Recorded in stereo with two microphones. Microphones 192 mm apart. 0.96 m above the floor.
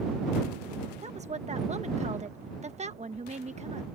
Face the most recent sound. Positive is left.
turn(degrees=-35)  # may be behind; listen again after turning